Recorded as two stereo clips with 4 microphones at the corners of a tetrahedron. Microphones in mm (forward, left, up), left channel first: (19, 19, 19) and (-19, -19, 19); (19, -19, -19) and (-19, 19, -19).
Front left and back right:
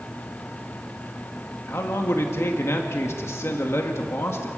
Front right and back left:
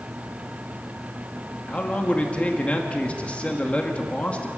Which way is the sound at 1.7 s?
20° left.